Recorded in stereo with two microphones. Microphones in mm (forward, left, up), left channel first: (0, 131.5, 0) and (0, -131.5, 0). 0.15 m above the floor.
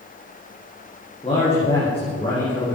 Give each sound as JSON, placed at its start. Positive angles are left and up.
{"t": 1.2, "sound": "a man speaking", "side_deg": 20, "distance_m": 6.5}